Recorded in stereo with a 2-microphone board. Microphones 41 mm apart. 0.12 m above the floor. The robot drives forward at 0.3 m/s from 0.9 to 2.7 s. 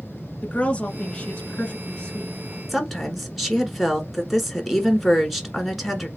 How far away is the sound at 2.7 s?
About 1.5 m.